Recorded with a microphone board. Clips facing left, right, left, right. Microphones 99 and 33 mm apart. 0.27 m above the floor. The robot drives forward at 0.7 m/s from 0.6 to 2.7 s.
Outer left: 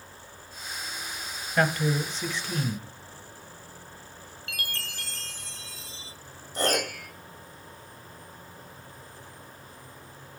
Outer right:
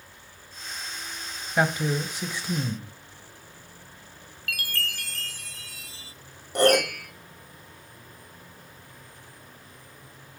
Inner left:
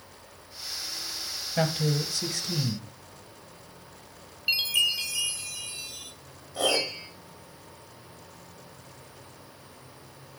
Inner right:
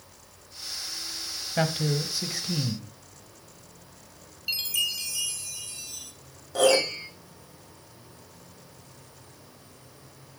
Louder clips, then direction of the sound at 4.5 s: Outer right 5 dB, inner left 4 dB; 25° left (ahead or behind).